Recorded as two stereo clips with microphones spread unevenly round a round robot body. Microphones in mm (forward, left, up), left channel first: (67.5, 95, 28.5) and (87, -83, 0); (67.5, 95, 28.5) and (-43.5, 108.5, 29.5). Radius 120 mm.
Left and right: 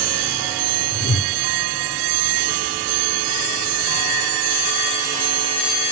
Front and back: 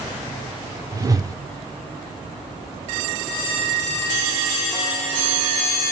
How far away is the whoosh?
About 0.5 m.